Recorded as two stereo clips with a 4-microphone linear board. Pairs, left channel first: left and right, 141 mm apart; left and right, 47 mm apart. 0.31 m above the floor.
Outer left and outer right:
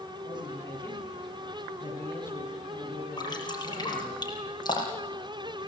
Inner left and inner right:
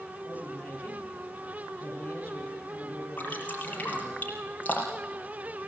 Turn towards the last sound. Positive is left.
turn(degrees=30)  # may be behind; listen again after turning